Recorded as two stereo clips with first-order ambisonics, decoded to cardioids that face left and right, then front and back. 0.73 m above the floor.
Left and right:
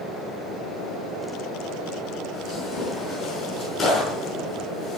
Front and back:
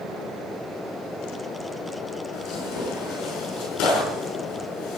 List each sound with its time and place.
2.3 s tearing paper: 30° left, 7 m